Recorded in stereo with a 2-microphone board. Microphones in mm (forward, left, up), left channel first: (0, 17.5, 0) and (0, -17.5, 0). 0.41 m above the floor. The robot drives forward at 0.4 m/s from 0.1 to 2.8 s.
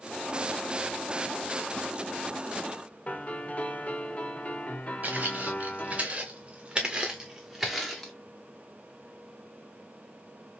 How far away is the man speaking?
No man speaking in this recording.